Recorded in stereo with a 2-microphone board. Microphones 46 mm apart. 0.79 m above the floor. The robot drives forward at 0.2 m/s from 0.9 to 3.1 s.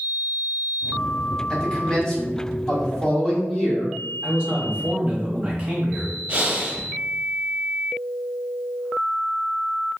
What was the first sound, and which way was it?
A man speaking, 20° left (ahead or behind).